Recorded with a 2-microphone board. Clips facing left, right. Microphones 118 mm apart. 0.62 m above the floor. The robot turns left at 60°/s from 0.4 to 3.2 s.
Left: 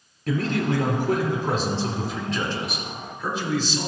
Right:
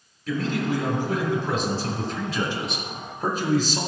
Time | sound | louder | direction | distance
0.3 | a man speaking | left 1 dB | 115° left | 1.8 m